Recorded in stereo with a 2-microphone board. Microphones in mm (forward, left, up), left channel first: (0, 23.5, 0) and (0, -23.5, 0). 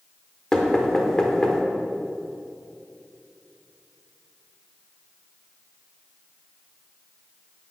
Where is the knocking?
10° left (ahead or behind), 0.8 m.